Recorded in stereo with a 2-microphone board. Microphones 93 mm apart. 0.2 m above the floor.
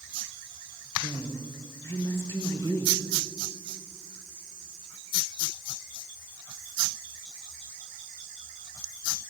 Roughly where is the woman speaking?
Left.